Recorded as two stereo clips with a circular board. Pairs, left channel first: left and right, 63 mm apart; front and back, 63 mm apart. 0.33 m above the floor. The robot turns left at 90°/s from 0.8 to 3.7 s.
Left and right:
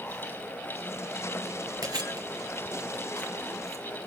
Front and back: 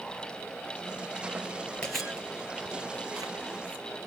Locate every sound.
1.8 s chewing: 75° right, 3.5 m; by 3.9 s 115° left, 3.5 m